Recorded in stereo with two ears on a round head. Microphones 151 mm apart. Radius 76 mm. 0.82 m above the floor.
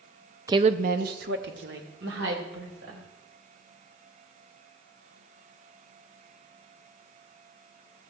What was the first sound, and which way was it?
A woman speaking, 20° right (ahead or behind).